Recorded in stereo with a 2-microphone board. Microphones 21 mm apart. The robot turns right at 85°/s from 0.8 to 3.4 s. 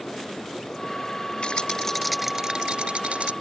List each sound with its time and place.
1.4 s a rattle: 120° left; by 3.3 s 80° right